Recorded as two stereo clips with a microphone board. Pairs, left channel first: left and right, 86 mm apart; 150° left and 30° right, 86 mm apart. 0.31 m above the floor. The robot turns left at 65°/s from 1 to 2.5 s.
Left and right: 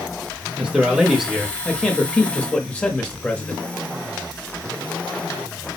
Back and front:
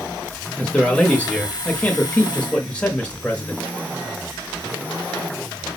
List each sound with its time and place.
0.6 s a man speaking: 155° right, 0.9 m; by 3.6 s 110° left, 0.9 m